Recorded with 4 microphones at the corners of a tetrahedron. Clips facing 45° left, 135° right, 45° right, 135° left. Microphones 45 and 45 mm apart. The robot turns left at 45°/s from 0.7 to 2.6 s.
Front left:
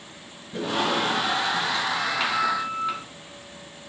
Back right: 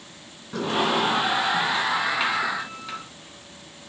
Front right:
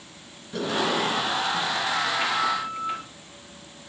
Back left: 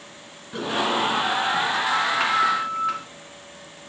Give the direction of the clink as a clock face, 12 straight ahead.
No clink in this recording.